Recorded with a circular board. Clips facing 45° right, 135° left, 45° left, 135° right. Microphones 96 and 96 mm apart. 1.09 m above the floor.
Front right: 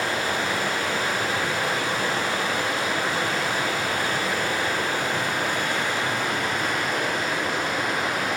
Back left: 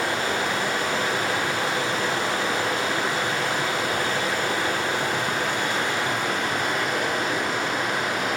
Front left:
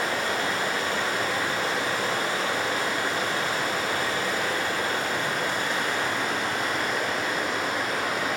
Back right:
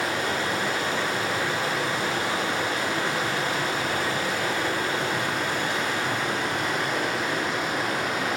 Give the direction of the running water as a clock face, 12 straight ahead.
5 o'clock.